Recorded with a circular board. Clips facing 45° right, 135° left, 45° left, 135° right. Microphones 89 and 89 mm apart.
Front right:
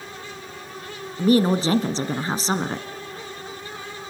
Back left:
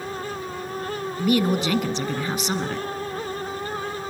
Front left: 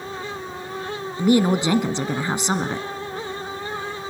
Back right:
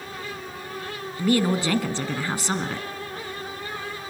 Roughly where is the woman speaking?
Ahead.